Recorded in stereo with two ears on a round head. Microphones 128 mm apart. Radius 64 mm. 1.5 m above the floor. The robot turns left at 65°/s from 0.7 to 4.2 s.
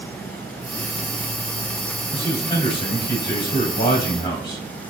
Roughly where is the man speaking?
Behind.